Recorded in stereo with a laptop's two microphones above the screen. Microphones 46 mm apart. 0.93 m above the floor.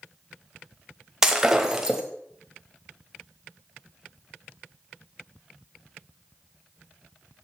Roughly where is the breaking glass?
Centre.